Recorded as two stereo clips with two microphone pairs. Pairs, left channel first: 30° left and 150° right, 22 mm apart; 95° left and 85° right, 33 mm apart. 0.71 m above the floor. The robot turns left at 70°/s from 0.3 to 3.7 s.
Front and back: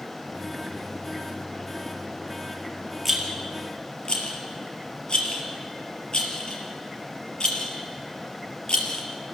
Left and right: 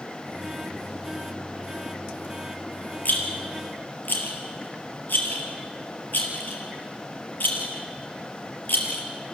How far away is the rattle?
About 3.5 m.